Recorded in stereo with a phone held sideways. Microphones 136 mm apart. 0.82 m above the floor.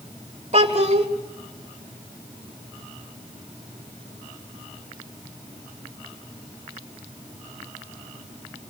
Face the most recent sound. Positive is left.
turn(degrees=-50)  # may be behind; listen again after turning